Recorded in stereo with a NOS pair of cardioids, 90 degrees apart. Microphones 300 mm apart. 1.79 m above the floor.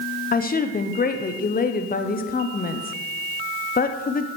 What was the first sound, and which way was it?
A woman speaking, 30° left.